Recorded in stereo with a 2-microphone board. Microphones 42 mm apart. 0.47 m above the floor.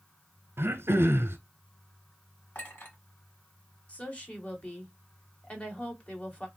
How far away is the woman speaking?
About 1.6 m.